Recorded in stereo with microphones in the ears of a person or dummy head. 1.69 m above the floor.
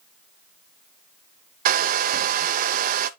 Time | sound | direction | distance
1.6 | a hair dryer | 50° right (ahead or behind) | 0.6 m